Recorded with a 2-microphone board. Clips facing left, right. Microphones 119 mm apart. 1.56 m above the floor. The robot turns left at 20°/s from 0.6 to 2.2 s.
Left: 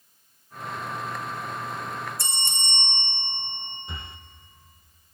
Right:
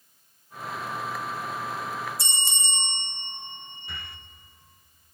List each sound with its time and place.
2.2 s a bell: 55° left (ahead or behind), 3.5 m
3.9 s breathing: 25° left (ahead or behind), 0.7 m